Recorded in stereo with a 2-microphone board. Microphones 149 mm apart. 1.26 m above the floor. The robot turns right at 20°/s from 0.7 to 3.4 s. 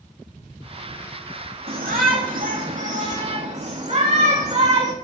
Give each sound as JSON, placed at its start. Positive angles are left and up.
{"t": 1.7, "sound": "a shout", "azimuth_deg": -85, "distance_m": 3.0}